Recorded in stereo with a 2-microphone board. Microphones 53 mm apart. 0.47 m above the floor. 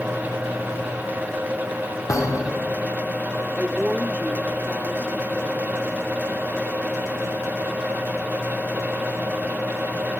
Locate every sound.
2.1 s a thud: 65° left (ahead or behind), 3.5 m
3.6 s a woman speaking: 30° right (ahead or behind), 1.2 m